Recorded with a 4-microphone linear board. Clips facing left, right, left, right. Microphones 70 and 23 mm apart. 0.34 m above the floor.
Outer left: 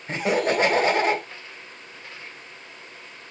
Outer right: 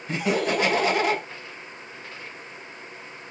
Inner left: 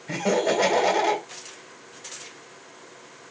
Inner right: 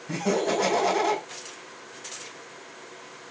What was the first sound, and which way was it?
Laughter, 35° left (ahead or behind).